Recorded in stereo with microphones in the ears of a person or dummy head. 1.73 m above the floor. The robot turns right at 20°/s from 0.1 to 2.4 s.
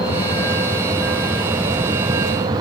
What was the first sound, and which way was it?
A vehicle, 160° left.